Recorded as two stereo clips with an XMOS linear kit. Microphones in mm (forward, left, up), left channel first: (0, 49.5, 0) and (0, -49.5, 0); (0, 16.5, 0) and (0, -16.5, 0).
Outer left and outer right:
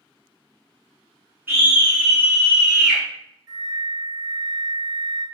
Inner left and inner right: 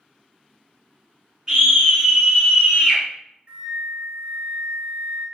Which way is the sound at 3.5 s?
40° right (ahead or behind).